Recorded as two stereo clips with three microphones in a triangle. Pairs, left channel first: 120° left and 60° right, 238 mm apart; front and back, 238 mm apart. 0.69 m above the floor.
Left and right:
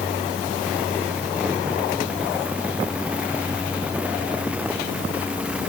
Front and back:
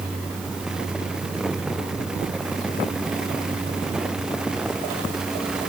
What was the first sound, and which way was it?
Only background noise.